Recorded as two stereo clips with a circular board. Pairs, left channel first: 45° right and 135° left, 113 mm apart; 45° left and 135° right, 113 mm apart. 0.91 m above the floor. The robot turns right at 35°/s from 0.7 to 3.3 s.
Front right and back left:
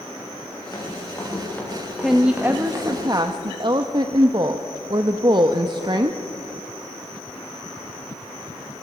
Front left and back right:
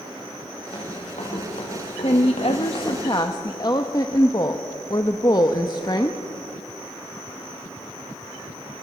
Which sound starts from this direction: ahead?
Running footsteps, at 0.7 s.